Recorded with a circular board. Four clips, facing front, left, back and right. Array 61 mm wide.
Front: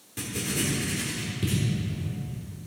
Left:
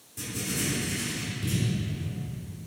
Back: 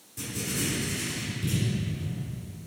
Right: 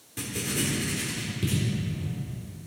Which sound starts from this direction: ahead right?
Writing, at 0.2 s.